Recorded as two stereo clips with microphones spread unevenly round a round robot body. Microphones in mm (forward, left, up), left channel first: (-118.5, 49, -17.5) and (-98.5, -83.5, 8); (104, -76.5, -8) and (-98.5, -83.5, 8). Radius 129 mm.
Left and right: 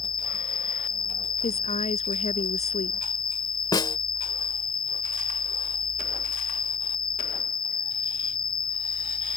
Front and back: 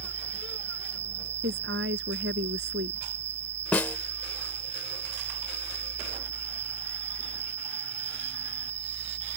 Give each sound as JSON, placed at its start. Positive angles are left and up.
{"t": 0.0, "sound": "an insect", "azimuth_deg": 155}
{"t": 1.4, "sound": "a woman speaking", "azimuth_deg": 130}
{"t": 3.7, "sound": "a snare drum", "azimuth_deg": 75}